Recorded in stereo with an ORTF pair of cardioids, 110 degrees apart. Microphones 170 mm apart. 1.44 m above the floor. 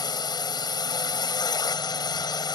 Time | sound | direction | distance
0.0 | a drone | 25° left | ?